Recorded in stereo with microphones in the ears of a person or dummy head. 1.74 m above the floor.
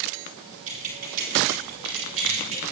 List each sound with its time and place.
0.7 s keys jangling: 45° right (ahead or behind), 4 m; by 2.6 s 80° right, 3 m